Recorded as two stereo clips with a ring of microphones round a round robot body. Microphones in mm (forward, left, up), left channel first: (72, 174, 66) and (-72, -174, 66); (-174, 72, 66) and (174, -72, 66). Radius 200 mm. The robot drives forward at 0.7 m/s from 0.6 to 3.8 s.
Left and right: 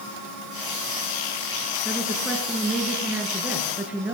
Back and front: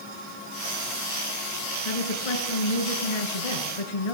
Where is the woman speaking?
155° left, 7 m; by 4.2 s 160° left, 8.5 m.